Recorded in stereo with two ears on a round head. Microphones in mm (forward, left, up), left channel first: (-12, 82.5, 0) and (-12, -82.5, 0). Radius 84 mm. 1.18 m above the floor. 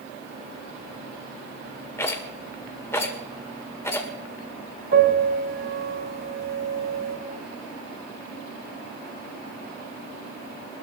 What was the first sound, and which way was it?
A rattle, 15° left (ahead or behind).